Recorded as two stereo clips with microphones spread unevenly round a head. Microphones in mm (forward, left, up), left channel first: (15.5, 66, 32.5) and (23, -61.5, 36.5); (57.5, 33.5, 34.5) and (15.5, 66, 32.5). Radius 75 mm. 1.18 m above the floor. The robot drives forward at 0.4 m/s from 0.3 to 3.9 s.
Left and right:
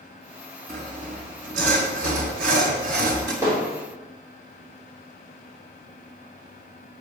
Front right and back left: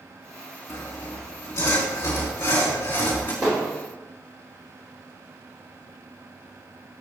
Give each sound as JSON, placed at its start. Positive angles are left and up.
{"t": 0.7, "sound": "sawing", "azimuth_deg": -55, "distance_m": 3.0}
{"t": 3.4, "sound": "hammering", "azimuth_deg": -160, "distance_m": 3.0}